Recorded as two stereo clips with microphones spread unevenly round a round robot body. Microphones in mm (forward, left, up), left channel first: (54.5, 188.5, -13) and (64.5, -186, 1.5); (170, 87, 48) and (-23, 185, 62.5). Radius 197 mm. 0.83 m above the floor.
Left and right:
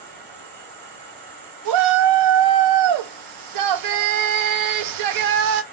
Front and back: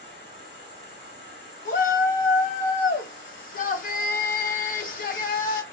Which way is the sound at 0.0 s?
75° right.